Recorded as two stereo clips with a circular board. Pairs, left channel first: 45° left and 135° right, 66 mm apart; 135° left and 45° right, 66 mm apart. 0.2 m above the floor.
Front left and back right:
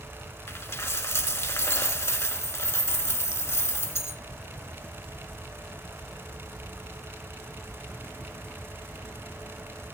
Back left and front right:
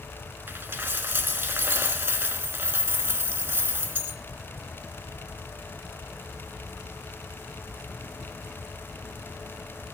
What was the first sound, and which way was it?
A dropped coin, 10° left.